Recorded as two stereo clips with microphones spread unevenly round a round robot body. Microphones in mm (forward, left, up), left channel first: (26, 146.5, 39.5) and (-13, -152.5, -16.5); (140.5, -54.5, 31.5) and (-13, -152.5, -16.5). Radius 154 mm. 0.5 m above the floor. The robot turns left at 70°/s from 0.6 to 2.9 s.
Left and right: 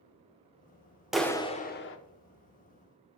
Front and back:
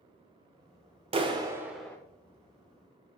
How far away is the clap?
About 0.8 m.